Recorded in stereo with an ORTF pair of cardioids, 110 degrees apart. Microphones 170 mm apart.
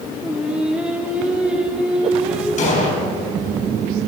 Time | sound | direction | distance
0.2 | singing | 5° right | 2.5 m
2.6 | an explosion | 45° left | 5.5 m